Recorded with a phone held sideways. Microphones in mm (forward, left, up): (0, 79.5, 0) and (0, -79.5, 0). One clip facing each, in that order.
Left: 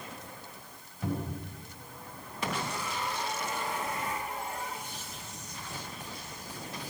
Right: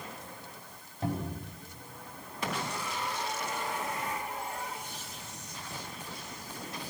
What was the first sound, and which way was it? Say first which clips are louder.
A cupboard door: even; 35° right (ahead or behind).